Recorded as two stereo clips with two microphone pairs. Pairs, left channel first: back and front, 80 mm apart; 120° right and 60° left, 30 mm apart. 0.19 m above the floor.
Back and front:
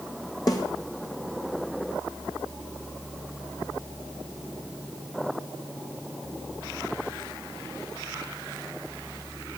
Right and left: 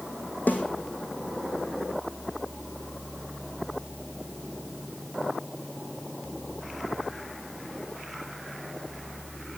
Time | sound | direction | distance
0.5 | a snare drum | 140° right | 2.5 m